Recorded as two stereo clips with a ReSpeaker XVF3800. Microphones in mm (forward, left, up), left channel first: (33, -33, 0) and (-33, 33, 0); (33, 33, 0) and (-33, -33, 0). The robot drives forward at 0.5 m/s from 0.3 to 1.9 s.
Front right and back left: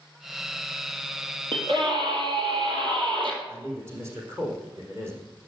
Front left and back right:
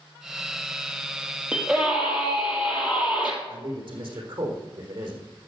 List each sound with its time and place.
1.5 s a scream: 150° left, 3.5 m
3.5 s a man speaking: 165° right, 4.5 m